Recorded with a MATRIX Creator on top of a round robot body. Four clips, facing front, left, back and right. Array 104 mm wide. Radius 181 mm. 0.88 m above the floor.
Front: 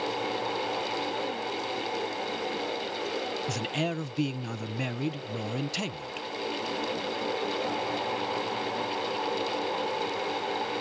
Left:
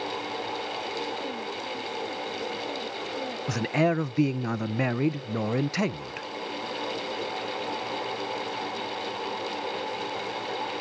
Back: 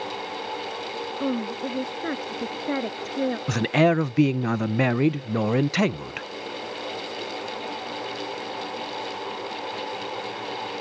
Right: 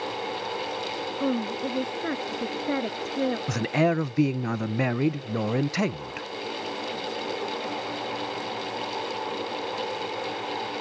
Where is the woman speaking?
140° right; by 3.4 s 145° right.